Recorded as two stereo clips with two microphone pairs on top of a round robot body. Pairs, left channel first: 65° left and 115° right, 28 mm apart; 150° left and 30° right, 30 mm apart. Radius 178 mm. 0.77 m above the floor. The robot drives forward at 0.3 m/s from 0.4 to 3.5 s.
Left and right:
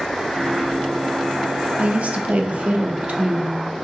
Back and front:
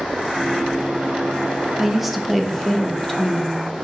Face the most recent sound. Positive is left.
turn(degrees=-140)